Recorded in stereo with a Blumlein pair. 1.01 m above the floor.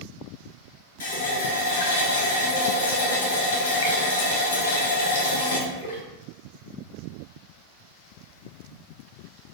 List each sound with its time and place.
1.0 s a running tap: 60° left, 1.0 m